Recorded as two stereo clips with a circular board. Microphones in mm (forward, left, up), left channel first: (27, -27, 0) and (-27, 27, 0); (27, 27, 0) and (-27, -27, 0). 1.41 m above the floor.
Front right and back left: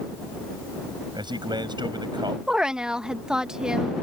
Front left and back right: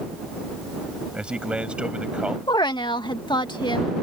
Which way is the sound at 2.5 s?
55° left.